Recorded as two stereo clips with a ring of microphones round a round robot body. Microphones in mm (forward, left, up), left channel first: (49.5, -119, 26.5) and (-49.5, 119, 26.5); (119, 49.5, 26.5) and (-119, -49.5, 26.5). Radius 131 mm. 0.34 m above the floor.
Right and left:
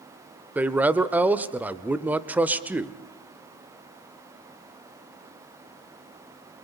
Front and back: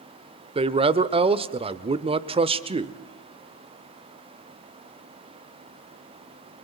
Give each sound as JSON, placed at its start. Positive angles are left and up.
{"t": 0.6, "sound": "a man speaking", "azimuth_deg": -175, "distance_m": 0.8}